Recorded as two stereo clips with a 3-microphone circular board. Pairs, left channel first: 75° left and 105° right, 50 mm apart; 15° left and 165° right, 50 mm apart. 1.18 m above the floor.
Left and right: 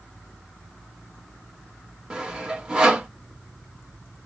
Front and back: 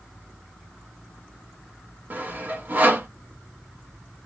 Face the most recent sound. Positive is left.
turn(degrees=-165)